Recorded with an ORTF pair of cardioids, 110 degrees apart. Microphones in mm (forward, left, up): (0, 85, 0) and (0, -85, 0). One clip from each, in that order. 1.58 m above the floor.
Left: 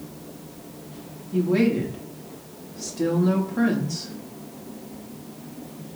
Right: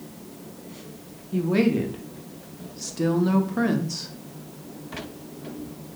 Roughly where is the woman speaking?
Ahead.